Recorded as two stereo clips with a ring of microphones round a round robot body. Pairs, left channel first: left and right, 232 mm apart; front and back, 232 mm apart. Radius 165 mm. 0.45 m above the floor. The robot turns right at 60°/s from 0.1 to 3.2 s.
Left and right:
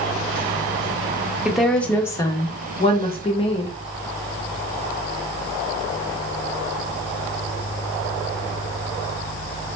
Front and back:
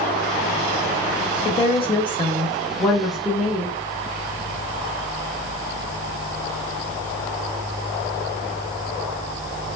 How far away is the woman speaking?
About 0.7 m.